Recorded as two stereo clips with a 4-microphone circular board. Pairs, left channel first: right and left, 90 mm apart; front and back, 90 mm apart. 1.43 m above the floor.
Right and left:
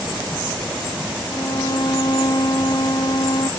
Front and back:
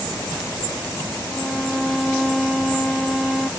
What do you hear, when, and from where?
1.3 s a violin: 90° right